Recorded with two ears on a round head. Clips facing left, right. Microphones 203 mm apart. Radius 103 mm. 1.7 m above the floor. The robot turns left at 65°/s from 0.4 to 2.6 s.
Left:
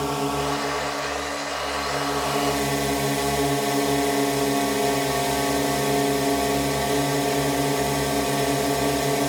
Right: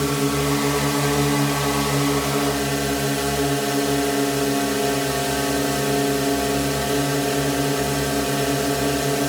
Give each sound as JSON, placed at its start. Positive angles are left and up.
{"t": 0.0, "sound": "a drone", "azimuth_deg": -25}